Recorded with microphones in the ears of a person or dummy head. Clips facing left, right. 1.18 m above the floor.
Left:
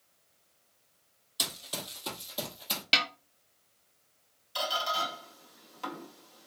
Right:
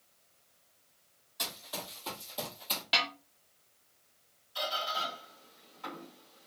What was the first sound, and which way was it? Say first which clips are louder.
Running footsteps: left 1 dB; 45° left (ahead or behind).